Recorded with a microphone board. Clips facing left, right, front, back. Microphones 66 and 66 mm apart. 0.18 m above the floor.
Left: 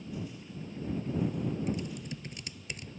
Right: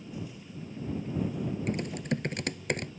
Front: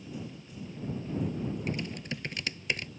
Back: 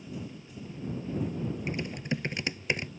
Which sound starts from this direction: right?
Typing on a keyboard, at 1.7 s.